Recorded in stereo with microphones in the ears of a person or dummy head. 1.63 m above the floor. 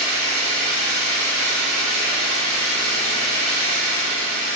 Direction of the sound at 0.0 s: 70° left (ahead or behind).